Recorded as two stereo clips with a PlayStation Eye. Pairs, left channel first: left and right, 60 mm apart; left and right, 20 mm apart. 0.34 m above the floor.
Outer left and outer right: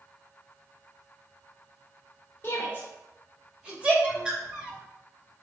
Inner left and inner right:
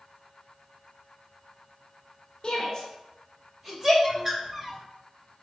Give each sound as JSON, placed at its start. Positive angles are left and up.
{"t": 2.4, "sound": "a shout", "side_deg": 30, "distance_m": 1.1}
{"t": 4.0, "sound": "a bird", "side_deg": -15, "distance_m": 0.7}